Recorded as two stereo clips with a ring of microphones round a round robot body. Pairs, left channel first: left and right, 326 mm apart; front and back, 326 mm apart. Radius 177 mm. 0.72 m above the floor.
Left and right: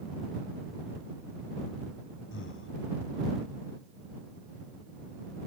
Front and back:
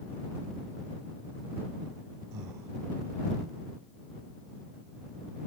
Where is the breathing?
140° left.